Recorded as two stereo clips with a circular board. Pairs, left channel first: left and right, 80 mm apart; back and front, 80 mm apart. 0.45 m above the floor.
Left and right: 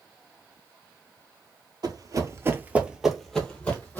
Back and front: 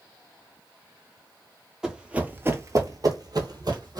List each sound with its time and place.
1.8 s running footsteps: 85° right, 0.7 m; by 4.0 s 25° left, 0.9 m